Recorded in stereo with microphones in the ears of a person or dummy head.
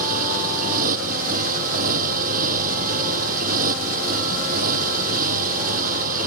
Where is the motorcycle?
50° right (ahead or behind).